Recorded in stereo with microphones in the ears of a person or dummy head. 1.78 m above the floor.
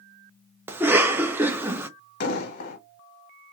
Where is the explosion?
60° left (ahead or behind), 1.0 m.